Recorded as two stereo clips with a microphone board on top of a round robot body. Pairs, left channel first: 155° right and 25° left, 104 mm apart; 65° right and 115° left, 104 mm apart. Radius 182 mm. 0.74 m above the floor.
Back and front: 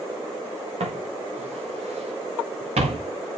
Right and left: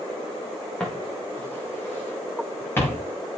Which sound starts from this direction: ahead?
Footsteps, at 0.8 s.